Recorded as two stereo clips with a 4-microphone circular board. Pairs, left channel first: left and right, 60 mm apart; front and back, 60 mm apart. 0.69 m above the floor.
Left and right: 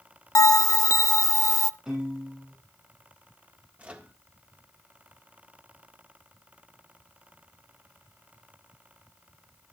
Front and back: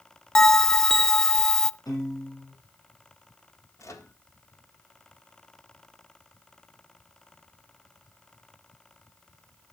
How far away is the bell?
About 0.5 m.